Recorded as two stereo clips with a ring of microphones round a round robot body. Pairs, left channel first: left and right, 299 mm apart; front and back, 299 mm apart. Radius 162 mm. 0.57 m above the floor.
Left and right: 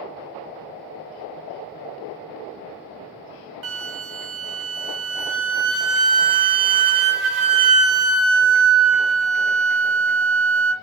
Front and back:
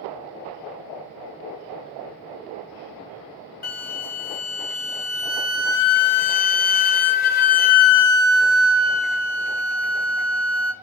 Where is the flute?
60° right, 0.5 m.